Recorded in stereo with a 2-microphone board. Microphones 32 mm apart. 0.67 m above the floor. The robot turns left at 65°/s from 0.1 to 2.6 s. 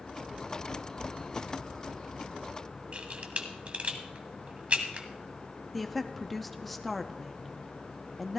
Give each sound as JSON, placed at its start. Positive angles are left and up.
{"t": 2.9, "sound": "a camera shutter", "side_deg": -40, "distance_m": 1.2}
{"t": 5.7, "sound": "a woman speaking", "side_deg": 5, "distance_m": 0.6}